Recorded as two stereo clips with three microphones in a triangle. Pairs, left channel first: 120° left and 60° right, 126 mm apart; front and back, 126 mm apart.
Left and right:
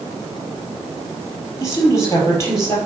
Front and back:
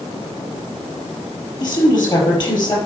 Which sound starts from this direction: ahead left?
A woman speaking, at 1.6 s.